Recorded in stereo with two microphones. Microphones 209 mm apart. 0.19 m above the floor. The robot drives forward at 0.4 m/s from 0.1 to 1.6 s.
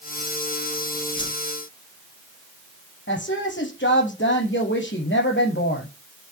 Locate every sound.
1.2 s a whoosh: 20° left (ahead or behind), 1.2 m
3.1 s a woman speaking: 65° left (ahead or behind), 6 m